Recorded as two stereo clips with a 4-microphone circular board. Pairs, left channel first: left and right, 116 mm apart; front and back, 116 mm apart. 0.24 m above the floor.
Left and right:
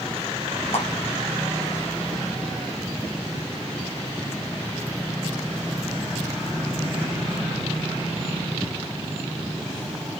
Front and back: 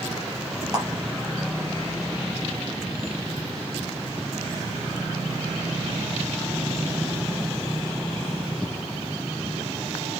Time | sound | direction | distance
0.7 | a clap | 125° left | 5.5 m